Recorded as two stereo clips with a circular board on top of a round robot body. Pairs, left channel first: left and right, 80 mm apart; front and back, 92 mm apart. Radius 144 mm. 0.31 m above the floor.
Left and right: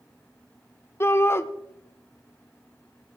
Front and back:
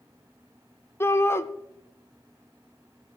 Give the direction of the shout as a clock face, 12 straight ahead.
10 o'clock.